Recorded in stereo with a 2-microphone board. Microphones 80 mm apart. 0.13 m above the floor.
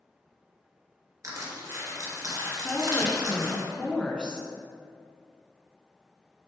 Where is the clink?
I don't hear a clink.